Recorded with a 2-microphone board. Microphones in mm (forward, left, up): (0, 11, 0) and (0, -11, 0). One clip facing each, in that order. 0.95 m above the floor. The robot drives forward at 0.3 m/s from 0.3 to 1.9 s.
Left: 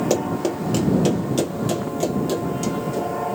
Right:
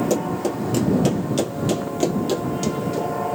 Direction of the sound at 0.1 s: 35° left (ahead or behind).